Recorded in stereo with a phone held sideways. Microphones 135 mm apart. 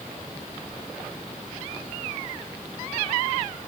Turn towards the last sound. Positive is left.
No sound to turn to.